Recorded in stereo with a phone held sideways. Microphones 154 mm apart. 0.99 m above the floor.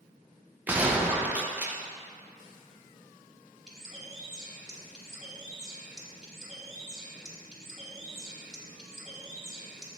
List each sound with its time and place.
0.7 s a gunshot: 10° right (ahead or behind), 0.6 m
3.7 s a bird: 5° right (ahead or behind), 1.2 m